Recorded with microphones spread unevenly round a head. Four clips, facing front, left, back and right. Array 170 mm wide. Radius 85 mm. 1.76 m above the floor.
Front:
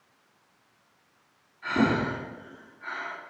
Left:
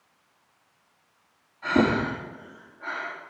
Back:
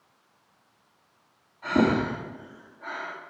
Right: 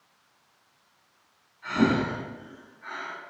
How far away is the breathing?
About 4.5 m.